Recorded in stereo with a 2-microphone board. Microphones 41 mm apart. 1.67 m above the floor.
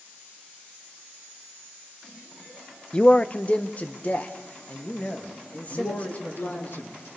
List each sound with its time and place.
2.9 s a man speaking: 30° left (ahead or behind), 0.7 m; by 6.7 s 40° left (ahead or behind), 5 m
5.7 s a man speaking: 65° left (ahead or behind), 2.5 m